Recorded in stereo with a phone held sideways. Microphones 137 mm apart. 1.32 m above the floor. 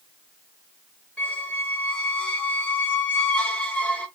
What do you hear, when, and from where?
1.2 s a squeak: 10° left (ahead or behind), 0.7 m